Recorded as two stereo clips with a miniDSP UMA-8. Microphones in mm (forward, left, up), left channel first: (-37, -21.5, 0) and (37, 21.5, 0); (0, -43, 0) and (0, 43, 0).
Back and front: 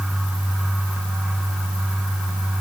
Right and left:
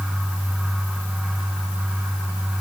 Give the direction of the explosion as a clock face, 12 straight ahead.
I don't hear an explosion.